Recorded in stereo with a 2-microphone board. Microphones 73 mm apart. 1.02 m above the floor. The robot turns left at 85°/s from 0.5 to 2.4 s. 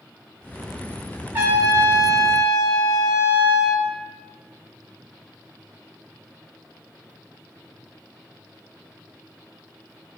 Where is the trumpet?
35° right, 1.3 m; by 3.9 s 125° right, 1.3 m.